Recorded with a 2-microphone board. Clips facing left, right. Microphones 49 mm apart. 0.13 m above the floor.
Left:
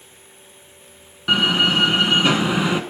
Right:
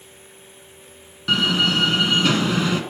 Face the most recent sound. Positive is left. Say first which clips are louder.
# left 2 dB
turn(degrees=15)  # may be behind; listen again after turning